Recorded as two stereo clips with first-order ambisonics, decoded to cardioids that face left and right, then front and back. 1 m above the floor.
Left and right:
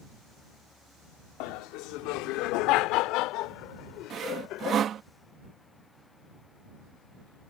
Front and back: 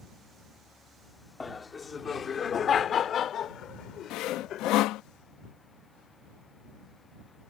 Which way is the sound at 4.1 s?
35° right.